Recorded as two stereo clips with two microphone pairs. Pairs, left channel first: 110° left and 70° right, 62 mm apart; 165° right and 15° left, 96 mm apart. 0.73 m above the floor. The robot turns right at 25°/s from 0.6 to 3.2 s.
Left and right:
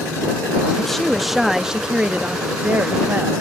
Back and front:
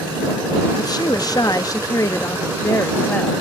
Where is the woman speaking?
165° right; by 3.3 s 105° right.